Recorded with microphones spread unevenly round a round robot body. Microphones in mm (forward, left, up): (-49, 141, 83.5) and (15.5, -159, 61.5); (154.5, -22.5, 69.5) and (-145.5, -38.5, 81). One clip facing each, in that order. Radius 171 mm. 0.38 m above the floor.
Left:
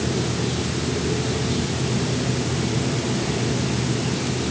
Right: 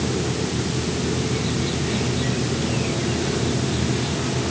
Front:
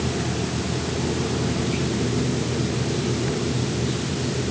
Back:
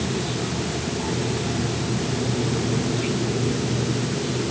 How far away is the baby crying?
No baby crying in this recording.